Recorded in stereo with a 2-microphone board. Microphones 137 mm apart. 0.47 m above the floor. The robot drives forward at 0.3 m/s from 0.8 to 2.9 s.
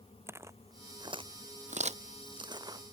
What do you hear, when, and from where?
0.3 s footsteps: 20° right (ahead or behind); by 2.8 s 25° right (ahead or behind)